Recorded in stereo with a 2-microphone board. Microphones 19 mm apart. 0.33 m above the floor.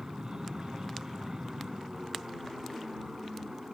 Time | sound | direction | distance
0.0 | an aircraft | 35° right (ahead or behind) | ?